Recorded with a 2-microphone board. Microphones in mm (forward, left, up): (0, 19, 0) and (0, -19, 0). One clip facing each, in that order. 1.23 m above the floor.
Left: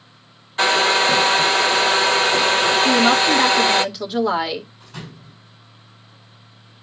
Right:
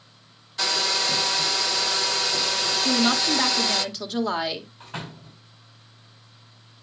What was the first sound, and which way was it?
A hair dryer, 45° left (ahead or behind).